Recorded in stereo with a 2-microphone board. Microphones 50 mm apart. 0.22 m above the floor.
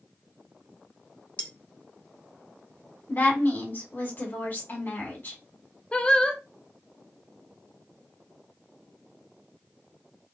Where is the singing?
20° left (ahead or behind), 0.6 m.